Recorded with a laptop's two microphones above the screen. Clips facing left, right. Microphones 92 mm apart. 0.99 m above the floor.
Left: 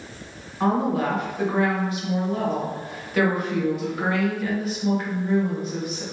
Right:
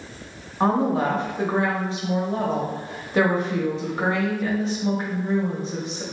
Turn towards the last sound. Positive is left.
turn(degrees=-30)  # may be behind; listen again after turning